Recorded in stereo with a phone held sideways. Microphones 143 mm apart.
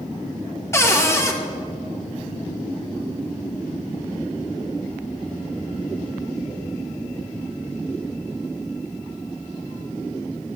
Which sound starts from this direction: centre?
A cupboard door, at 0.7 s.